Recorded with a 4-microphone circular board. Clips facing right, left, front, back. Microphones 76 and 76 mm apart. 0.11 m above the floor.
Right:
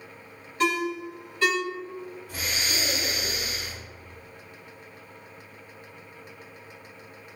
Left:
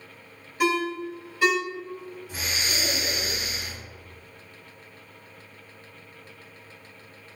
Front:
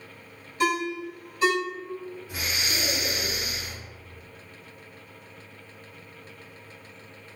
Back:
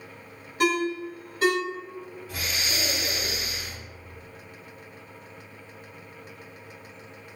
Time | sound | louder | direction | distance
0.6 | a ringtone | left 1 dB, back 1 dB | 165° left | 1.3 m
2.3 | breathing | even, even | 55° left | 1.9 m